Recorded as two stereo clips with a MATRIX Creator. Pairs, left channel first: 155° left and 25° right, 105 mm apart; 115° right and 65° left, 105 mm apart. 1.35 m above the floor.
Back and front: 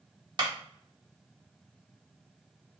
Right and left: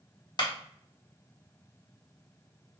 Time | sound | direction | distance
0.4 | a clap | 65° right | 0.9 m